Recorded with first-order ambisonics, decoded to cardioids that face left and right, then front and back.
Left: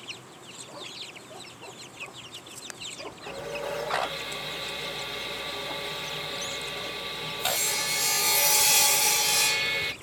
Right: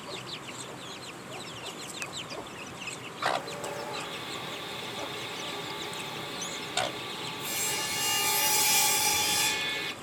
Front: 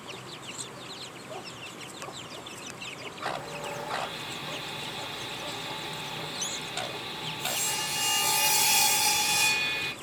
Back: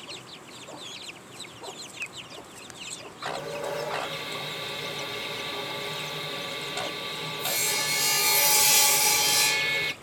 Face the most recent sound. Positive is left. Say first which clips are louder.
# right 2 dB, back 4 dB
turn(degrees=155)